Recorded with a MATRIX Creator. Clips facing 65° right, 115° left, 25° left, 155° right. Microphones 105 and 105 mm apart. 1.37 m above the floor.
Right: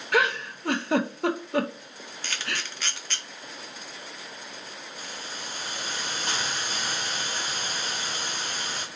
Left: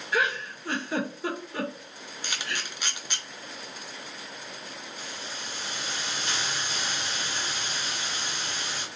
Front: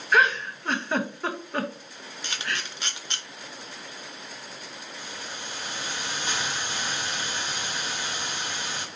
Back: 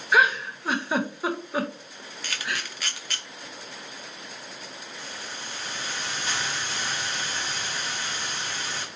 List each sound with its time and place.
0.1 s a giggle: 75° right, 0.5 m
2.2 s a camera shutter: 55° left, 0.6 m
5.0 s a hiss: 45° right, 0.8 m